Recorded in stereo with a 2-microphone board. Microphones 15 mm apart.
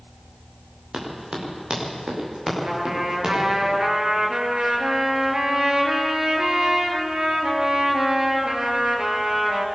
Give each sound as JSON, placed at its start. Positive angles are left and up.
{"t": 0.9, "sound": "running footsteps", "side_deg": -70, "distance_m": 7.0}
{"t": 2.6, "sound": "a trumpet", "side_deg": -75, "distance_m": 3.5}